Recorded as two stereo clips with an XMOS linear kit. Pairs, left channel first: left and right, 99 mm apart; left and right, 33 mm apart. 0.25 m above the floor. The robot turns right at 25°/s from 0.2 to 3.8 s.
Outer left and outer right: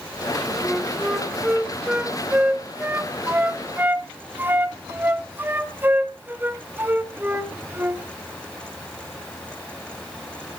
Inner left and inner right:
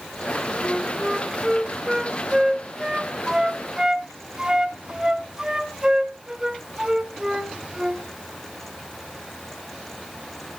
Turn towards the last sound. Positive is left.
turn(degrees=-20)  # may be behind; listen again after turning